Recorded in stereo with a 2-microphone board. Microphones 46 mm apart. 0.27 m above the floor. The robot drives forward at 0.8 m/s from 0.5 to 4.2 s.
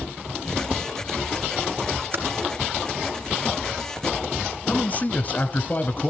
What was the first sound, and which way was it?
Typing on a keyboard, 50° right (ahead or behind).